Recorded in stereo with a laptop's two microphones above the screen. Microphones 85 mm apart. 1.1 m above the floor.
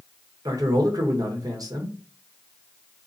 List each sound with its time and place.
0.5 s a man speaking: 50° right (ahead or behind), 1.2 m